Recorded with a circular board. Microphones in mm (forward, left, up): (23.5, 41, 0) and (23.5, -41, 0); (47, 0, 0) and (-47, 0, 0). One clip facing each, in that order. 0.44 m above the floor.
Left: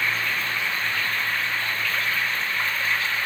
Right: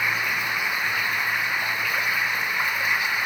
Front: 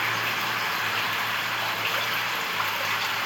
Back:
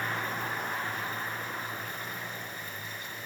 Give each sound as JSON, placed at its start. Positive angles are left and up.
{"t": 0.0, "sound": "running water", "azimuth_deg": -15}